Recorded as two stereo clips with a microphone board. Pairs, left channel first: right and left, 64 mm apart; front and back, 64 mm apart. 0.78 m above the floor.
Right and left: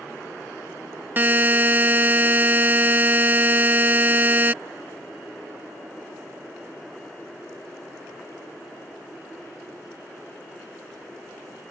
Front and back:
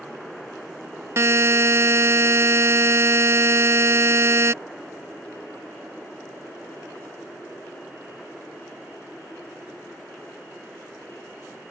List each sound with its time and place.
1.2 s a buzzer: 145° left